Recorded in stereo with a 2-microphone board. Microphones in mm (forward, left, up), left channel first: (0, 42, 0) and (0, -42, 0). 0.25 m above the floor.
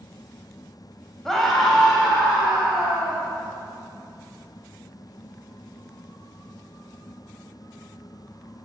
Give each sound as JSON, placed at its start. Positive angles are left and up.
{"t": 1.2, "sound": "a scream", "side_deg": 5, "distance_m": 1.1}